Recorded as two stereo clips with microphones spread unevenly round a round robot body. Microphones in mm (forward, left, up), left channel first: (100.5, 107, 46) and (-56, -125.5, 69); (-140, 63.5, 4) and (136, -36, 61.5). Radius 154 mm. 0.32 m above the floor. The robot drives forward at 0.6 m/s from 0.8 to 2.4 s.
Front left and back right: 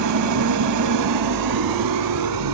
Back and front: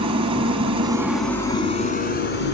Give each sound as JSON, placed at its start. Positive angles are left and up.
{"t": 0.0, "sound": "an engine running", "azimuth_deg": -95, "distance_m": 0.8}